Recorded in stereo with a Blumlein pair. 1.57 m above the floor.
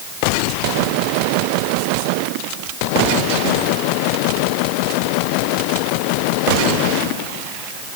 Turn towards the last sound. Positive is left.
No sound to turn to.